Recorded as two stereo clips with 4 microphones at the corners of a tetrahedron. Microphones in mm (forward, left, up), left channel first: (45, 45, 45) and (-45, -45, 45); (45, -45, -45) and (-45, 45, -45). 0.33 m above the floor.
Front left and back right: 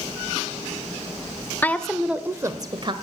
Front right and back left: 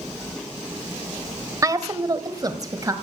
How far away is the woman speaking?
About 1.0 m.